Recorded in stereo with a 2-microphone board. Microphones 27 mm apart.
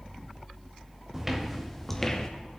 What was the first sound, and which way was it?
Footsteps, 10° right (ahead or behind).